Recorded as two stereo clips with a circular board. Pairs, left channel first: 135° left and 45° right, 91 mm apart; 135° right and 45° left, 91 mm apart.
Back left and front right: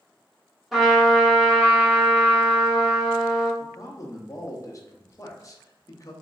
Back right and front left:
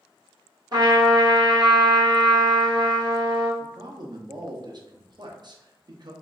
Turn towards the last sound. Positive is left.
turn(degrees=85)